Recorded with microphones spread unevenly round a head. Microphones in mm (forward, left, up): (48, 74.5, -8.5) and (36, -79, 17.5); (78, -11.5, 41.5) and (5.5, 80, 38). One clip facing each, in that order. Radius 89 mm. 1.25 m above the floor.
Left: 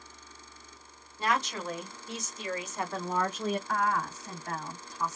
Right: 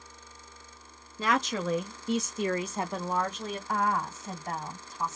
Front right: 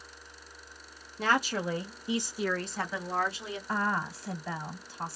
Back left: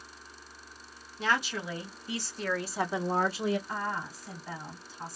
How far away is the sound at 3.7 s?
About 1.1 m.